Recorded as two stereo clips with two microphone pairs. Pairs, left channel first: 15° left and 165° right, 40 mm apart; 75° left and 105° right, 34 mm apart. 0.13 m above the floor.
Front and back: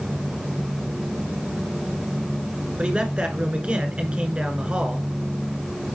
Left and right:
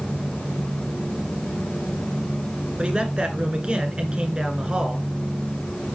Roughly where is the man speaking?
Behind right.